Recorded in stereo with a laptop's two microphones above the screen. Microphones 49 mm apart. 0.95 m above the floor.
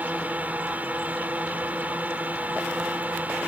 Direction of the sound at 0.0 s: 30° right (ahead or behind).